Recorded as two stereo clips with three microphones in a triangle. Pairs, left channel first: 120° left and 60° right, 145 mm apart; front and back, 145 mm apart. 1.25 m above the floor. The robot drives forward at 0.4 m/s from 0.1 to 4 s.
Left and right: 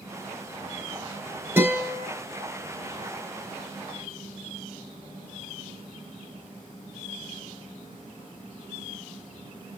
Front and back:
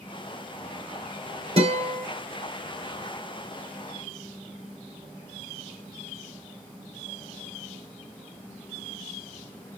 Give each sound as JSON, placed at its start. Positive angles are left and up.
{"t": 1.6, "sound": "a guitar", "azimuth_deg": -135, "distance_m": 4.5}